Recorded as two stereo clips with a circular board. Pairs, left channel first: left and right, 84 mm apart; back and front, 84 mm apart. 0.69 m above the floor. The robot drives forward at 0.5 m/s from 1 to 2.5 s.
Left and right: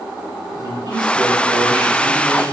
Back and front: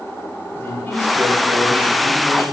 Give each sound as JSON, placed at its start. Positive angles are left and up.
{"t": 0.6, "sound": "a man speaking", "azimuth_deg": -115, "distance_m": 2.5}